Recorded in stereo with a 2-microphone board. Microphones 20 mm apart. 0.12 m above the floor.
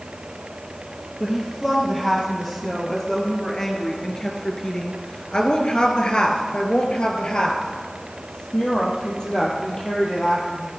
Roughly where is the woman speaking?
Centre.